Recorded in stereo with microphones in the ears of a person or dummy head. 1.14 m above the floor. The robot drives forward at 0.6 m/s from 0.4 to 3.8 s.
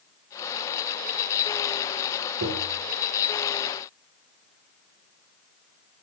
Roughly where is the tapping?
Right.